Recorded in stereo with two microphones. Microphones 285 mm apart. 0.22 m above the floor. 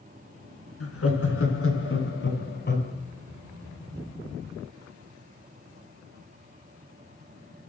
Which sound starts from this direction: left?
Laughter, at 0.8 s.